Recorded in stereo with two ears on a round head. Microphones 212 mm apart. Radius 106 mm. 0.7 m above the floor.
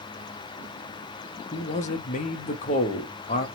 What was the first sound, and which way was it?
A man speaking, 35° left (ahead or behind).